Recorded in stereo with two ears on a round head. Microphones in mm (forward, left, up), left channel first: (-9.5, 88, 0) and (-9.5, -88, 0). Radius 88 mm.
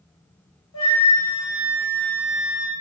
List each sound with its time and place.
0.7 s a flute: 80° left, 1.4 m